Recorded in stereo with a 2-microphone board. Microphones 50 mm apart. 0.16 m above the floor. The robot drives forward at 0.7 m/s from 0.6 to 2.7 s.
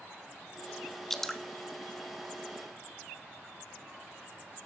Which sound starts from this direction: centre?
Dripping, at 1.1 s.